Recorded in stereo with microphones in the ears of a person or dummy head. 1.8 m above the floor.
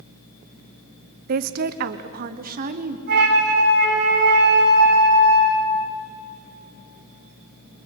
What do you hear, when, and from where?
1.3 s a woman speaking: 60° right (ahead or behind), 0.8 m; by 3.0 s 50° right (ahead or behind), 1.7 m
3.1 s a flute: 50° right (ahead or behind), 9.5 m